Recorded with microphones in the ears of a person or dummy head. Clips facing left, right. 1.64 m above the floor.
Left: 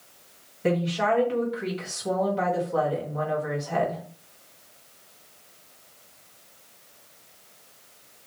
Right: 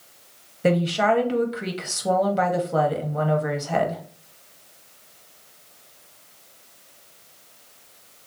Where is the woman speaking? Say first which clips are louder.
Right 4 dB; 50° right (ahead or behind), 1.5 m.